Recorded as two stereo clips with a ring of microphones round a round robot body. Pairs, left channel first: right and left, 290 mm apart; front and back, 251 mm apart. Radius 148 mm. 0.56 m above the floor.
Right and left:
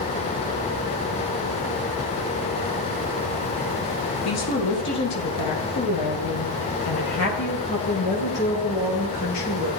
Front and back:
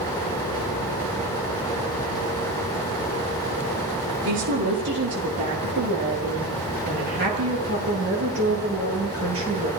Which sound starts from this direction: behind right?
A woman speaking, at 4.2 s.